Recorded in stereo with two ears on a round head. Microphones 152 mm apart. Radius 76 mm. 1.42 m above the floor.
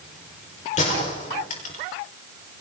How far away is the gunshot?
About 5 m.